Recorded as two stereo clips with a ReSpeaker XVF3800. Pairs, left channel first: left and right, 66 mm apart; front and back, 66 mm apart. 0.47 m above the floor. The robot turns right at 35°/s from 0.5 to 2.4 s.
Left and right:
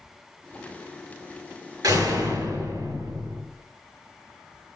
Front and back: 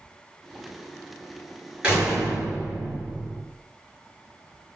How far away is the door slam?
About 7 m.